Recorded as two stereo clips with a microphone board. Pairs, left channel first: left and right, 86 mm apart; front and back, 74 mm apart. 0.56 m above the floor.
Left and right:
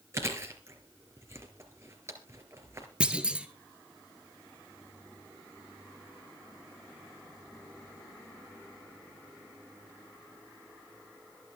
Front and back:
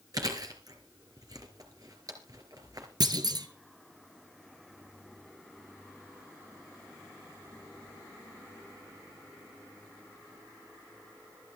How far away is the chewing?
About 3.5 m.